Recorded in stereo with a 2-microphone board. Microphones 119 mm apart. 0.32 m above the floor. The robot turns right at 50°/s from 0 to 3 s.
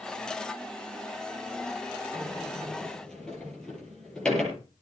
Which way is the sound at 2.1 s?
35° right (ahead or behind).